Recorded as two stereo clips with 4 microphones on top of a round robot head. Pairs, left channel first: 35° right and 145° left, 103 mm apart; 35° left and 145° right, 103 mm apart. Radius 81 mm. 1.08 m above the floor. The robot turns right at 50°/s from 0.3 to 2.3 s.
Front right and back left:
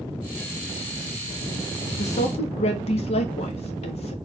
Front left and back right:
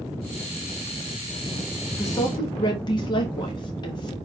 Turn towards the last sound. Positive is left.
turn(degrees=-15)